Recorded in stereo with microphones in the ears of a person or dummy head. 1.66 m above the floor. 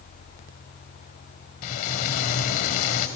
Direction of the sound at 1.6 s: 45° left (ahead or behind).